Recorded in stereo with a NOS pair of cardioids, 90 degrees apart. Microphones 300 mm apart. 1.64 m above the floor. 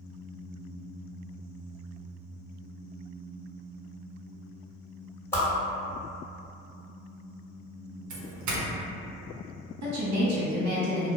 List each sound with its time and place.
5.3 s a whoosh: 10° left, 1.3 m
8.1 s a doorbell: 70° right, 0.7 m
9.8 s a woman speaking: 65° right, 1.1 m